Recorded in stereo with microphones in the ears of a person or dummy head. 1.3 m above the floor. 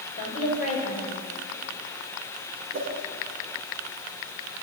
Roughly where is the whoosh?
Right.